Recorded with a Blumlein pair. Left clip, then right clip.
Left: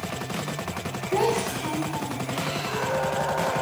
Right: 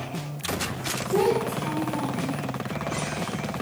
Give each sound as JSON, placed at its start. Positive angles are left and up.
{"t": 1.1, "sound": "a child speaking", "azimuth_deg": 35, "distance_m": 0.8}